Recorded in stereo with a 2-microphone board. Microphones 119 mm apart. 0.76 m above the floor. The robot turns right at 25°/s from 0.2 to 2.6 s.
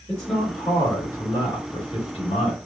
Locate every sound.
0.1 s a man speaking: 10° left, 2.5 m; by 2.5 s 70° left, 2.5 m